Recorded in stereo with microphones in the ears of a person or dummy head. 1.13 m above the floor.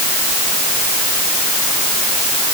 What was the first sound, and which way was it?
Only background noise.